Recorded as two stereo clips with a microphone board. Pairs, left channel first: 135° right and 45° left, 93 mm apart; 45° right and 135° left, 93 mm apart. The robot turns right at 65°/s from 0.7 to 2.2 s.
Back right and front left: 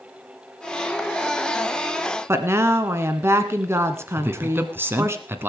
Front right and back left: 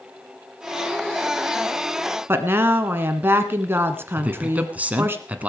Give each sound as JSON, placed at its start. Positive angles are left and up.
{"t": 2.3, "sound": "a woman speaking", "azimuth_deg": 85, "distance_m": 1.4}
{"t": 4.2, "sound": "a man speaking", "azimuth_deg": 80, "distance_m": 1.4}